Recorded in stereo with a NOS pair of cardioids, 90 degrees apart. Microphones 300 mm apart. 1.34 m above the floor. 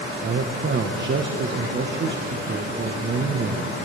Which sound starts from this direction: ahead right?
A man speaking, at 0.2 s.